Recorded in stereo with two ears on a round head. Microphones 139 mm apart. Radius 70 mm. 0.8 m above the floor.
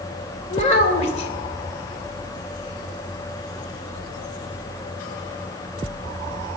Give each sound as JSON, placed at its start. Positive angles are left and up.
{"t": 0.5, "sound": "a child speaking", "side_deg": 45, "distance_m": 2.5}